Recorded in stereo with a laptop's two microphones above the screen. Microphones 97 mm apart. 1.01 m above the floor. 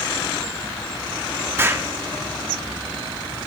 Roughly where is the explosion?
Right.